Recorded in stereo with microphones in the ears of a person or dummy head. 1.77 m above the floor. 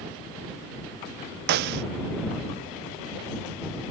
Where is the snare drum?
55° right (ahead or behind).